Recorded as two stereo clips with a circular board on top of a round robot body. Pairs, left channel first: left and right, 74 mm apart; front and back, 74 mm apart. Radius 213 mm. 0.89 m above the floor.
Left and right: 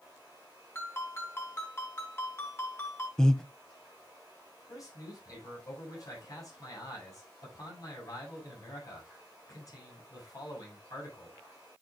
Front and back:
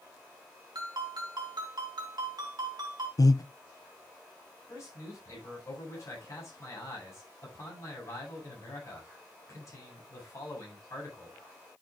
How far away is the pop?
No pop in this recording.